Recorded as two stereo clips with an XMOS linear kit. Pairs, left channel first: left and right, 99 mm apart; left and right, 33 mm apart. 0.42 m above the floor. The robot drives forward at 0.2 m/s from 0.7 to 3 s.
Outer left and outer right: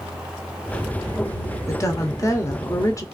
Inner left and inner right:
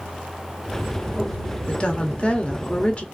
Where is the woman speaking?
30° left (ahead or behind), 0.9 m; by 3.0 s 35° left (ahead or behind), 0.9 m.